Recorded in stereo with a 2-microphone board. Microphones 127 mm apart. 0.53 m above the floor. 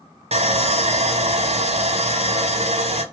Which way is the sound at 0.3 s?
55° right (ahead or behind).